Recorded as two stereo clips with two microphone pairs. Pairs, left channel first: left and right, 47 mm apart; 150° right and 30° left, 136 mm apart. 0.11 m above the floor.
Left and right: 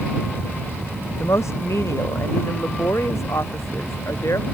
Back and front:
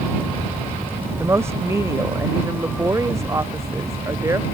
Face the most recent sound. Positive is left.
turn(degrees=100)